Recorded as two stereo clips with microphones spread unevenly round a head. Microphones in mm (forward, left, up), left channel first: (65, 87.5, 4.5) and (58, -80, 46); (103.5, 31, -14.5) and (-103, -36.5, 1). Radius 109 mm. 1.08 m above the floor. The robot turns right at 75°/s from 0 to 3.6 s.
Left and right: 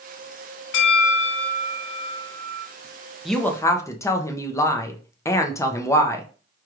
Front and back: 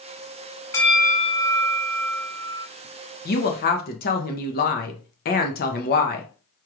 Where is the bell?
95° left, 0.8 m; by 2.7 s 120° right, 0.8 m.